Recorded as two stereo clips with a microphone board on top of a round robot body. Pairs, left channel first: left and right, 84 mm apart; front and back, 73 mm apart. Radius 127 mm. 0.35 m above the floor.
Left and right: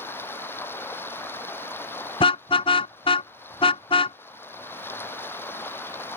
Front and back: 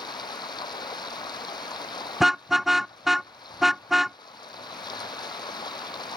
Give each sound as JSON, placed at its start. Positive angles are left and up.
{"t": 0.0, "sound": "running water", "azimuth_deg": 25}
{"t": 2.2, "sound": "a car horn", "azimuth_deg": 95}